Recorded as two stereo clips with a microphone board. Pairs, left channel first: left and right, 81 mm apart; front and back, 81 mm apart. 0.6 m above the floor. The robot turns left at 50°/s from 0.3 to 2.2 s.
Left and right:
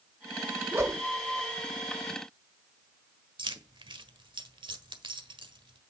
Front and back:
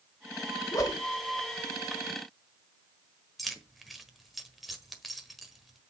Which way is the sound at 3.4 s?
90° right.